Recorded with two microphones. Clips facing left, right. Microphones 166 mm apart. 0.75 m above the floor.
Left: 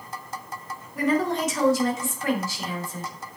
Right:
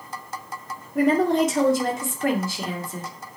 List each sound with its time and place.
0.9 s a woman speaking: 65° right (ahead or behind), 2.5 m